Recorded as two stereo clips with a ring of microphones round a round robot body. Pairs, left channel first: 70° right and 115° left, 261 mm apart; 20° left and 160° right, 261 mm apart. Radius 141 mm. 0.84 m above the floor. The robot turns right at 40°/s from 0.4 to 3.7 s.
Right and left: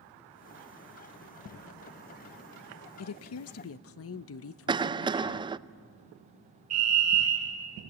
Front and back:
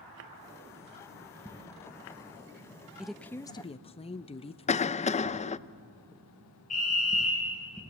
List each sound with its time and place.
3.0 s a woman speaking: 70° right, 0.6 m; by 5.5 s 45° right, 0.6 m
4.7 s a cough: 55° left, 0.5 m
6.7 s a fire alarm: 85° left, 5.5 m